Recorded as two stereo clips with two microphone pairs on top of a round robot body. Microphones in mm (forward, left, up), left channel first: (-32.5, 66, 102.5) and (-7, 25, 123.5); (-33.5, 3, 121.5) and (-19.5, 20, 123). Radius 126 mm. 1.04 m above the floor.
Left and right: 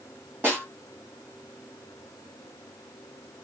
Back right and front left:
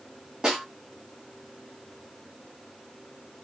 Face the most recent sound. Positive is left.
turn(degrees=-5)